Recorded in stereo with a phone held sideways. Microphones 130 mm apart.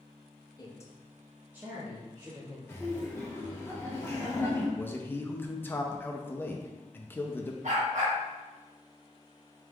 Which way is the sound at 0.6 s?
30° left (ahead or behind).